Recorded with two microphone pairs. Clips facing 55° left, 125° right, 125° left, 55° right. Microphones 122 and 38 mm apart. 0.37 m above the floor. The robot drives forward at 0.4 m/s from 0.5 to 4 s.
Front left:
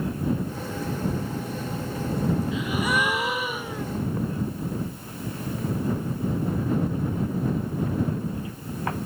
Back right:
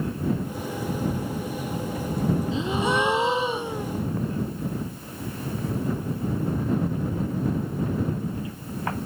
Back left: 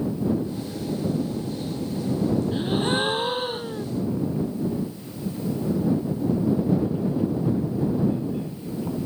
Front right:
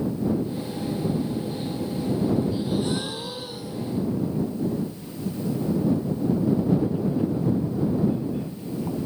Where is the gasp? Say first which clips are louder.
Back right 2 dB, back left 2 dB; 170° left.